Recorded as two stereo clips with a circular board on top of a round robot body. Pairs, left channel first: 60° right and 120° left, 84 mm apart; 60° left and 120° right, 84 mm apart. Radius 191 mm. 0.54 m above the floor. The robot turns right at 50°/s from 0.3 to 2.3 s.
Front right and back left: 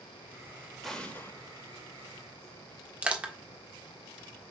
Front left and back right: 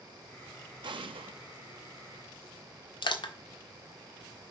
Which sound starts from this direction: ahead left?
Crushing, at 3.0 s.